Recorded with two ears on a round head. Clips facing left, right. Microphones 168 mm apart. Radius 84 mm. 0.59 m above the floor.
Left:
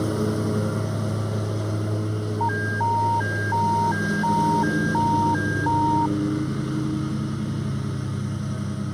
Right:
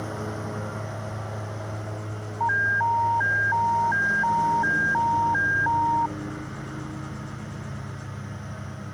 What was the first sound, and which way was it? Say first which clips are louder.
A lawn mower: left 9 dB; 45° left (ahead or behind).